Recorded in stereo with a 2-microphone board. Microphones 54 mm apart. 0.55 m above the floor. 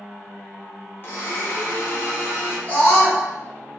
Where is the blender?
45° left (ahead or behind), 1.0 m.